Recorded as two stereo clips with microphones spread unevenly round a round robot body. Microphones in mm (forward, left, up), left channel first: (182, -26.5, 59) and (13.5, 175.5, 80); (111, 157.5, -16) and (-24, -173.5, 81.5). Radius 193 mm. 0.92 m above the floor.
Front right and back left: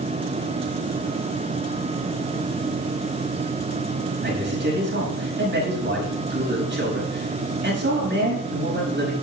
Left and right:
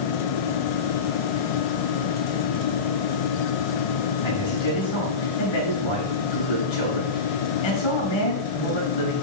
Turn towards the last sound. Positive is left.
turn(degrees=85)